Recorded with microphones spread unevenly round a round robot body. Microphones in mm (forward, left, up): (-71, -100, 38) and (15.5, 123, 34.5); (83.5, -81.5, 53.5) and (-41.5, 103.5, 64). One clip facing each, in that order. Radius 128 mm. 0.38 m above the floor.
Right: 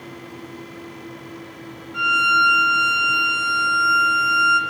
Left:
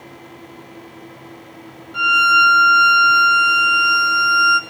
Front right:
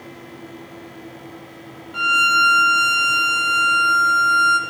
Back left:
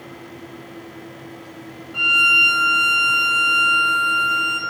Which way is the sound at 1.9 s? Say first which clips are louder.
Left 4 dB, front right 5 dB; 5° left.